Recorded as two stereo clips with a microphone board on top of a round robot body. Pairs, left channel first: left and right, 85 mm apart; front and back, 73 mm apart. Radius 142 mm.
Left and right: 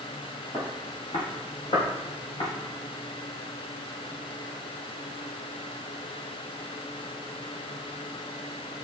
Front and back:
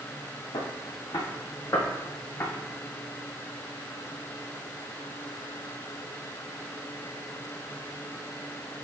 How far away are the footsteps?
About 1.5 m.